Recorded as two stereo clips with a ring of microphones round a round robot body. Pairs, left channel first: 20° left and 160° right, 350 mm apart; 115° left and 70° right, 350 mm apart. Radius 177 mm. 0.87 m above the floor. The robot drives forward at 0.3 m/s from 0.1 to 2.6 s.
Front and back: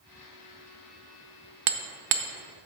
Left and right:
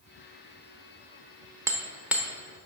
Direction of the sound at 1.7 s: 150° right.